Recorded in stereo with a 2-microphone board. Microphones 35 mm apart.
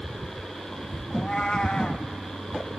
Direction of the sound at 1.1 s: 30° left (ahead or behind).